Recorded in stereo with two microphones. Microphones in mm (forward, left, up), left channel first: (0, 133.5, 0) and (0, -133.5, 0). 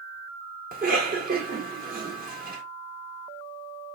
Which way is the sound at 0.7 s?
30° right (ahead or behind).